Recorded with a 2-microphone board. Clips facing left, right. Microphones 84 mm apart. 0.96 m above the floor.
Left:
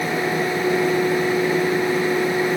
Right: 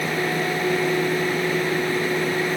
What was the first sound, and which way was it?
Only background noise.